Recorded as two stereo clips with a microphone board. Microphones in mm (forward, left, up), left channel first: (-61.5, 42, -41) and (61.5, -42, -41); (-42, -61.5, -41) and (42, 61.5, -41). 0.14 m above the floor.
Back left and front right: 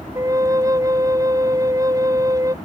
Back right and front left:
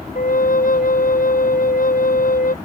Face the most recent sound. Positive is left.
turn(degrees=-100)